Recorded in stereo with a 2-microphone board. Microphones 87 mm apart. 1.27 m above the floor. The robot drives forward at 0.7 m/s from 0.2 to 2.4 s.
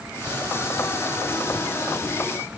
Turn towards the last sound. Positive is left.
No sound to turn to.